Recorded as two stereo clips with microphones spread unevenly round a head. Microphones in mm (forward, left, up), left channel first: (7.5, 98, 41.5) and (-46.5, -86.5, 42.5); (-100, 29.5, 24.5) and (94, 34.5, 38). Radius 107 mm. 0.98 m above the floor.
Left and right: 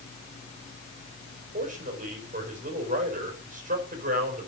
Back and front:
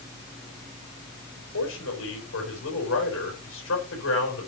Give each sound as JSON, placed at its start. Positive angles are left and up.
{"t": 1.5, "sound": "a man speaking", "azimuth_deg": -155, "distance_m": 4.5}